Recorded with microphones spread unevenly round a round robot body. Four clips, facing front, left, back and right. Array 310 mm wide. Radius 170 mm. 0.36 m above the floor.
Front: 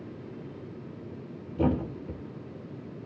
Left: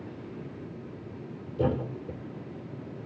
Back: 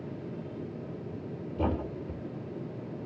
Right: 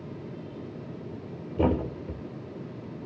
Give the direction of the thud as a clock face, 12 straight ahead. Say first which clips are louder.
Right 3 dB, front 4 dB; 1 o'clock.